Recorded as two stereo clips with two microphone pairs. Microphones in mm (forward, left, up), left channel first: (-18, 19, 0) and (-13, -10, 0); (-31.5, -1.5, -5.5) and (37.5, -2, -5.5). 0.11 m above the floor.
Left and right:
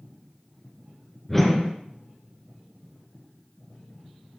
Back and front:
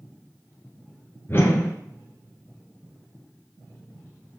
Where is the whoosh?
175° left, 1.7 m.